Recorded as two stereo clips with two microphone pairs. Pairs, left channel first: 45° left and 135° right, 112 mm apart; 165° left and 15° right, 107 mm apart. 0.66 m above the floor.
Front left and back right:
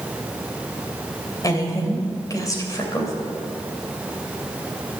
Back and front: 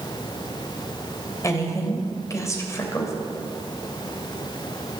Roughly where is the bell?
I don't hear a bell.